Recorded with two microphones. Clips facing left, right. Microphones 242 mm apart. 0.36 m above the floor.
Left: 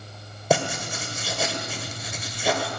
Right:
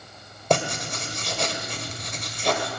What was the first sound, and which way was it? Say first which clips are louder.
Writing: left 1 dB; 5° left (ahead or behind).